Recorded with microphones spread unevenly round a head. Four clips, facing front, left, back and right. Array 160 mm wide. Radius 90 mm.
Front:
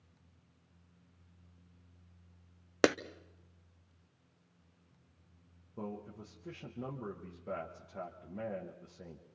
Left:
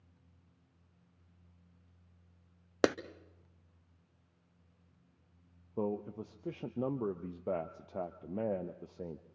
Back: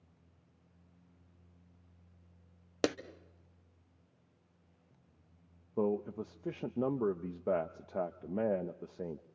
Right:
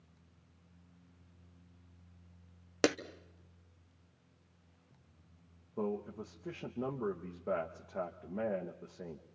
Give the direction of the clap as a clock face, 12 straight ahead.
12 o'clock.